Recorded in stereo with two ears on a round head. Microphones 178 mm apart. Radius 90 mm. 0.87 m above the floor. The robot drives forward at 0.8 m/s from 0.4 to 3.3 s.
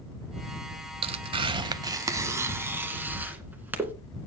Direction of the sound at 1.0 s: 30° right (ahead or behind).